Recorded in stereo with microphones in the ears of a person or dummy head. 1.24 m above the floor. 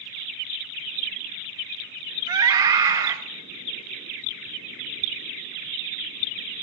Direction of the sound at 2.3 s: 20° right (ahead or behind).